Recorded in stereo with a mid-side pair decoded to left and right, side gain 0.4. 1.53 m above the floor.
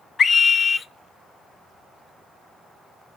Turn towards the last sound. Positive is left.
turn(degrees=50)